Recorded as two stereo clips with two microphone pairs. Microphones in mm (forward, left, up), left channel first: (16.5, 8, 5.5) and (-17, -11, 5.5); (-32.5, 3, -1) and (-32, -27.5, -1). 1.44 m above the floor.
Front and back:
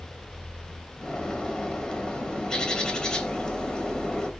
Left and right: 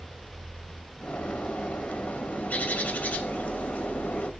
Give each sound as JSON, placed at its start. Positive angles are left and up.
{"t": 1.0, "sound": "a bird", "azimuth_deg": 95, "distance_m": 2.5}